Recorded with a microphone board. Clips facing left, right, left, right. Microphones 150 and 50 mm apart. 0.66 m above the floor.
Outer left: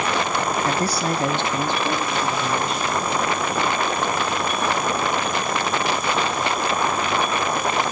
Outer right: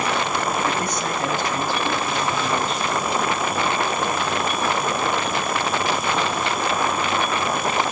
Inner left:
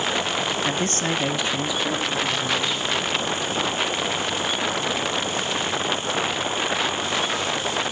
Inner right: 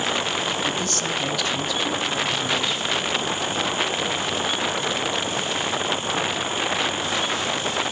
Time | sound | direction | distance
0.7 | a man speaking | 35° left (ahead or behind) | 0.8 m